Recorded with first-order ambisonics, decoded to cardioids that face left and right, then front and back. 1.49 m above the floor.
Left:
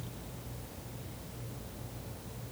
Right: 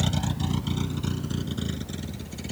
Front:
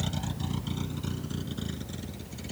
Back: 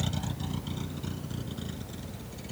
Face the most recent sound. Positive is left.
turn(degrees=-80)